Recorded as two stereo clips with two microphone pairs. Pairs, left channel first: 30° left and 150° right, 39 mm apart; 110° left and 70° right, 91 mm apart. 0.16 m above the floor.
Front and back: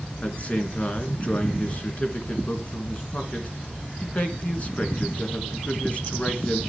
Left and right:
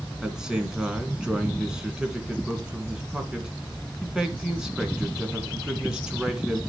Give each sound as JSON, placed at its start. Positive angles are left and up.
{"t": 0.2, "sound": "a man speaking", "azimuth_deg": 10, "distance_m": 1.9}